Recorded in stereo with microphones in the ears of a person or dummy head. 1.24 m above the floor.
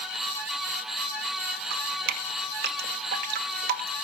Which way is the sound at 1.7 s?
60° right (ahead or behind).